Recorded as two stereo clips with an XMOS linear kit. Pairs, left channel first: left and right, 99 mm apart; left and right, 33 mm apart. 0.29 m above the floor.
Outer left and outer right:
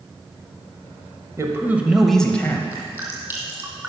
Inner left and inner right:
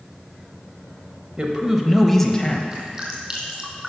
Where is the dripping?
25° right (ahead or behind), 2.5 m.